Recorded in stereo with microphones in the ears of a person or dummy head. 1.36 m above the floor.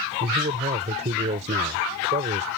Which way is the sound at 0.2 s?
40° right (ahead or behind).